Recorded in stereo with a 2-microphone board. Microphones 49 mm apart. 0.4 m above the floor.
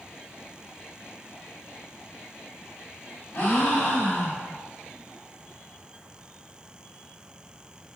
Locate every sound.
3.3 s a gasp: 35° left (ahead or behind), 1.3 m